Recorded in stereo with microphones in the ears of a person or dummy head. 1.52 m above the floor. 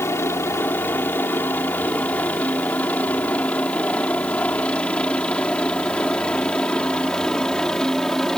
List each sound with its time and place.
0.0 s a helicopter: 15° left (ahead or behind); by 8.4 s 5° left (ahead or behind)